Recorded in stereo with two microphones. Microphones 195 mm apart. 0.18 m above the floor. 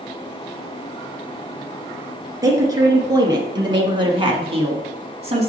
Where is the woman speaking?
20° right (ahead or behind), 2.5 m; by 5.5 s 35° right (ahead or behind), 1.2 m.